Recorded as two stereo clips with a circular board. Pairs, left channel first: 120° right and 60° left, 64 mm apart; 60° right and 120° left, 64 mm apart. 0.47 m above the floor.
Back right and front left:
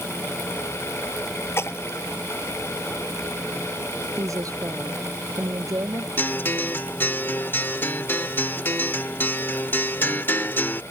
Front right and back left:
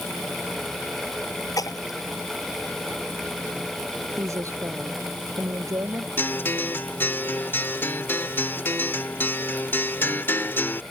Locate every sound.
1.6 s a splash: 75° right
4.2 s a woman speaking: 85° left
6.2 s a guitar: 90° right